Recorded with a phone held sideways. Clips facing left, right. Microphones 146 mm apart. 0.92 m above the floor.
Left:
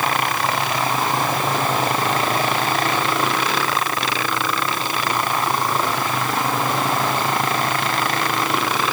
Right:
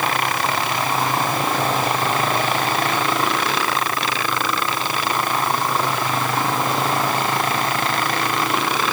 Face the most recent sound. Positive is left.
No sound to turn to.